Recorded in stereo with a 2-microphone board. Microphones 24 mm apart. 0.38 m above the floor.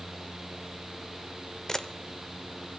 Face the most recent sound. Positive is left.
turn(degrees=20)  # may be behind; listen again after turning